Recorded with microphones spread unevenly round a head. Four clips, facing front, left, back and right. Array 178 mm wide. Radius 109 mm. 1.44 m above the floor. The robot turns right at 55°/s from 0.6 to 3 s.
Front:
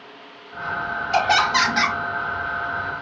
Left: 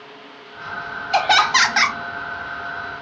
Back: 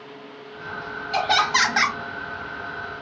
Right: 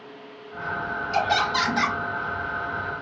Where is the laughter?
60° left, 0.9 m; by 2.0 s 105° left, 0.9 m.